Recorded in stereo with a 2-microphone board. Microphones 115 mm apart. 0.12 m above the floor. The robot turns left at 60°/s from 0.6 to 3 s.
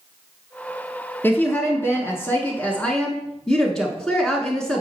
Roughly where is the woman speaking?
Centre.